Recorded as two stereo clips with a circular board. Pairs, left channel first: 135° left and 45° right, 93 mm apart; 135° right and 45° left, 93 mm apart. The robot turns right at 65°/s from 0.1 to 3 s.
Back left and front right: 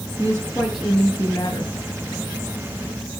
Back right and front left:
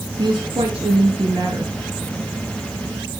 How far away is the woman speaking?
About 6 m.